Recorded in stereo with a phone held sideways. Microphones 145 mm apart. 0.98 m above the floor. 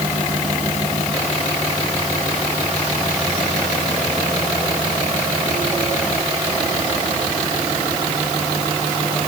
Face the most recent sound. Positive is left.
No sound to turn to.